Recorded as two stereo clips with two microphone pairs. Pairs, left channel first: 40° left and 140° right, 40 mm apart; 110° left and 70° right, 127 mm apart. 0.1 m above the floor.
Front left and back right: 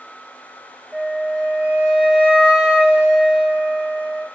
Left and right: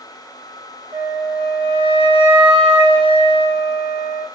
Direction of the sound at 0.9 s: 80° right.